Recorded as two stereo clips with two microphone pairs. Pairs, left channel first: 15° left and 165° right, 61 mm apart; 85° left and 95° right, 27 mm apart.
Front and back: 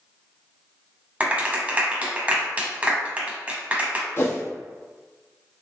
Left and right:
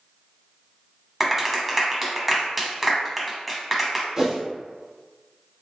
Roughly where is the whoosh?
Ahead right.